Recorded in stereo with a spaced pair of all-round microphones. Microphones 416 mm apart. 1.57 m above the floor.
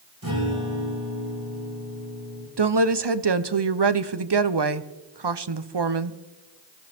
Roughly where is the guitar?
Right.